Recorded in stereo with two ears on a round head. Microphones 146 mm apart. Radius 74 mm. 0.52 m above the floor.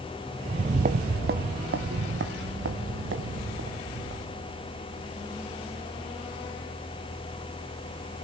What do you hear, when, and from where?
0.5 s footsteps: 30° right (ahead or behind), 0.6 m; by 4.6 s 80° right, 4 m